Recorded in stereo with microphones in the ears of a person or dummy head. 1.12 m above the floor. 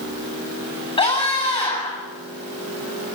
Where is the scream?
25° left (ahead or behind), 9.5 m.